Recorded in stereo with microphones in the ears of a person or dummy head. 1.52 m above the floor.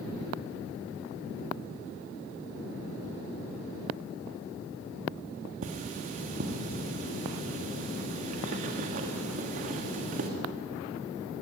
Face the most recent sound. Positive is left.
turn(degrees=-55)  # may be behind; listen again after turning